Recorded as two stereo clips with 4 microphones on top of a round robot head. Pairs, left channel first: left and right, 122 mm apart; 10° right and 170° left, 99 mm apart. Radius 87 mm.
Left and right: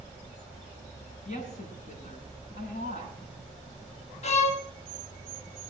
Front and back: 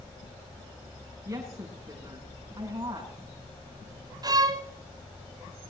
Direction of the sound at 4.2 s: 120° left.